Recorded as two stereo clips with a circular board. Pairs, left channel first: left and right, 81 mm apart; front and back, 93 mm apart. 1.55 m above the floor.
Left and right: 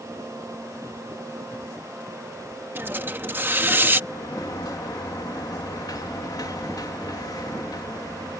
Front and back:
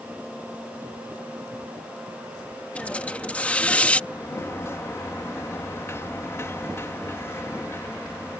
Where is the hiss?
60° right.